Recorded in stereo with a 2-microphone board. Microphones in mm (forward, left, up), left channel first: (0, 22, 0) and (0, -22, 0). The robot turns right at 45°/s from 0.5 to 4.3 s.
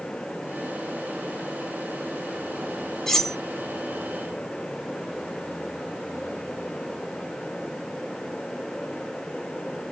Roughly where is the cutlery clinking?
Centre.